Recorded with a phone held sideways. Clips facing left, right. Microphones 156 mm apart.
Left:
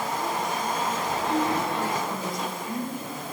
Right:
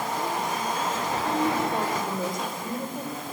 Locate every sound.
1.2 s a woman speaking: 50° right (ahead or behind), 6 m